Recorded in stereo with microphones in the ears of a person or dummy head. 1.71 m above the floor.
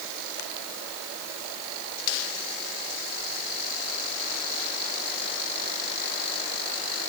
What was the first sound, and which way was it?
Only background noise.